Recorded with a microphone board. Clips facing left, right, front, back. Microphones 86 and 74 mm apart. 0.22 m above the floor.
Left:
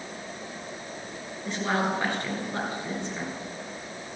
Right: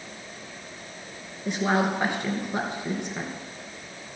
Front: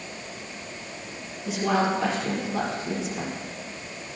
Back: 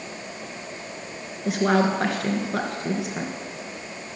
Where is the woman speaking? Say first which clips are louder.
Right 3 dB, back 3 dB; 160° right, 3 m.